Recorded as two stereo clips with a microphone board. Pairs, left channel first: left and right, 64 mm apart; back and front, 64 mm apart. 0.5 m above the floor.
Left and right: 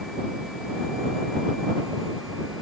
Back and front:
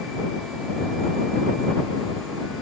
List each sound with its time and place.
Only background noise.